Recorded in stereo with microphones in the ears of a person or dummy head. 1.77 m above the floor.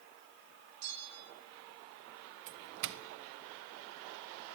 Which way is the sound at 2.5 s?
65° right (ahead or behind).